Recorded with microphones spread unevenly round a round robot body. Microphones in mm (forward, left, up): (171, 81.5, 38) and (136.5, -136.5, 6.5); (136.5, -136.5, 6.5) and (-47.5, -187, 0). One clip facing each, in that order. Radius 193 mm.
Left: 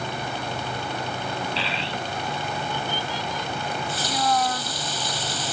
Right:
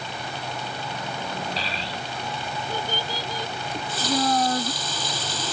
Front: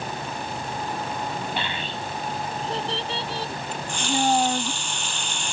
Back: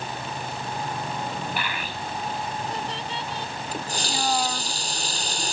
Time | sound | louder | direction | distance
1.6 | a child speaking | left 3 dB, front 1 dB | 50° right | ?
3.7 | a running tap | right 3 dB, front 4 dB | 110° right | ?